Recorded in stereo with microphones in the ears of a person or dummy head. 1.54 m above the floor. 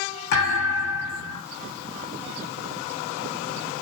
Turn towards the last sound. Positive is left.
turn(degrees=60)  # may be behind; listen again after turning